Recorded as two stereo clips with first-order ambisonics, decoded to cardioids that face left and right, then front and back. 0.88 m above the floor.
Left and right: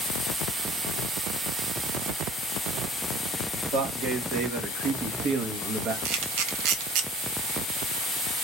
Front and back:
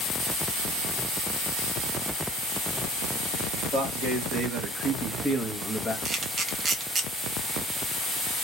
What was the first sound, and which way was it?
A man speaking, 115° right.